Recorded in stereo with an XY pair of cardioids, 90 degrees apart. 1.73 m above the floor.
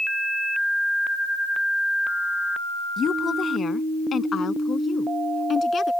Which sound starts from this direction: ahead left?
A woman speaking, at 3.0 s.